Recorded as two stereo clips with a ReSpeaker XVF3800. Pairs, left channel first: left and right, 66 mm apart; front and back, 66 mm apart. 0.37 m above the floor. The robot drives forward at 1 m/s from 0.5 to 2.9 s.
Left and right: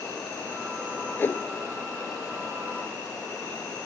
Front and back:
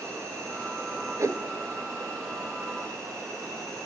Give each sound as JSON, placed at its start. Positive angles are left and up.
{"t": 0.0, "sound": "an insect", "azimuth_deg": 155, "distance_m": 9.5}
{"t": 1.2, "sound": "a whoosh", "azimuth_deg": 145, "distance_m": 0.9}